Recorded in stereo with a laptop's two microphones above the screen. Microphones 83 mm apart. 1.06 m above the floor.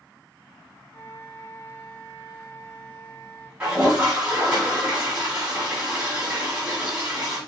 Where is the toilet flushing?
15° right (ahead or behind), 2.5 m.